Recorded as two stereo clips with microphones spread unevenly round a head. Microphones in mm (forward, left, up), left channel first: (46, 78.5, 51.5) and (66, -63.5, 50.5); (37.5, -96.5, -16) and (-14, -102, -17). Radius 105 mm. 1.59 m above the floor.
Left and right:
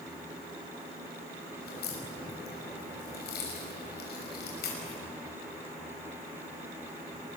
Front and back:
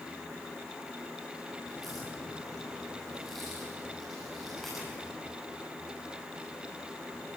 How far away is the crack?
About 5.5 m.